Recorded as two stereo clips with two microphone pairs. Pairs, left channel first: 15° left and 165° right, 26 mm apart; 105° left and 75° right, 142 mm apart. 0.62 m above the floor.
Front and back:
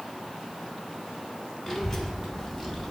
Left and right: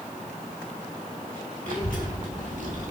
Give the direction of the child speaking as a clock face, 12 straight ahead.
2 o'clock.